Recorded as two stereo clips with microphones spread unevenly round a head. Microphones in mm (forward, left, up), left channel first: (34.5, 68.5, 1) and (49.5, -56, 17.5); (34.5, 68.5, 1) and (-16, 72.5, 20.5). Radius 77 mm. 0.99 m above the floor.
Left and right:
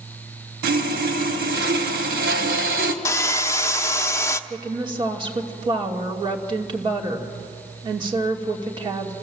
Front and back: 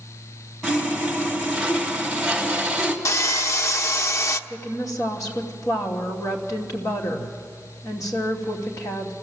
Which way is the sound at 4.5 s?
30° right.